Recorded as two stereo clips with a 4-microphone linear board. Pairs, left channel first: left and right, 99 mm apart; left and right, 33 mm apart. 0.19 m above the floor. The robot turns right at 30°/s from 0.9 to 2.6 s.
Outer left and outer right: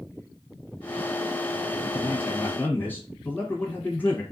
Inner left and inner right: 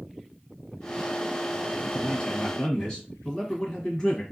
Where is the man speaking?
25° left (ahead or behind), 1.1 m; by 4.2 s 20° left (ahead or behind), 1.1 m.